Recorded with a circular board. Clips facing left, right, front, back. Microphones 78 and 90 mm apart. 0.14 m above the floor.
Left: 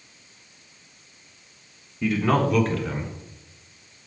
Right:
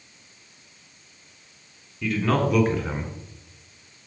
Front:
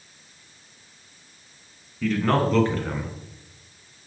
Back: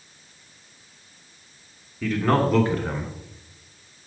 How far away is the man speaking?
About 1.2 m.